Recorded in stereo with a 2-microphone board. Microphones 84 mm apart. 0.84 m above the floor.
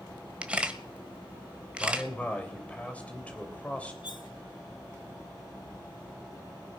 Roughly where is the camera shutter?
Centre.